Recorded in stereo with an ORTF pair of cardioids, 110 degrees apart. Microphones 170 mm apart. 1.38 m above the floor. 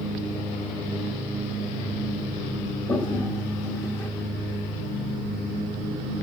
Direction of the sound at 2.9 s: 20° left.